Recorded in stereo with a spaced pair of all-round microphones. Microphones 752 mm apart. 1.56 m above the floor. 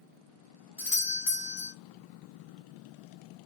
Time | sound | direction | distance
0.8 | a doorbell | 30° left (ahead or behind) | 0.7 m